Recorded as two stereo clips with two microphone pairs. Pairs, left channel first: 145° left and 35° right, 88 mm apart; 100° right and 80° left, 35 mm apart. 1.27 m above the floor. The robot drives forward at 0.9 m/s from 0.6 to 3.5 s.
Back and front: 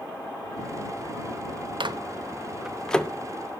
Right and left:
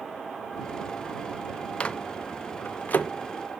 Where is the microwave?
45° right, 0.7 m; by 3.1 s 140° right, 0.9 m.